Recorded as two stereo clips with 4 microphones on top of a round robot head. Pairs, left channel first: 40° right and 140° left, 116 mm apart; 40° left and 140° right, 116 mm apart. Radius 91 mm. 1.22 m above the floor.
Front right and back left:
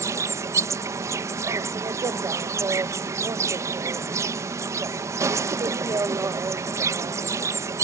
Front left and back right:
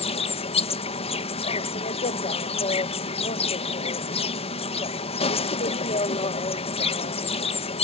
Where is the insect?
75° left.